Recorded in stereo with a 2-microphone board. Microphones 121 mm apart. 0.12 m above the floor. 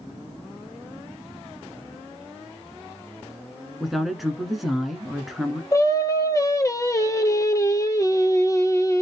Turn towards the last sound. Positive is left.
turn(degrees=25)  # may be behind; listen again after turning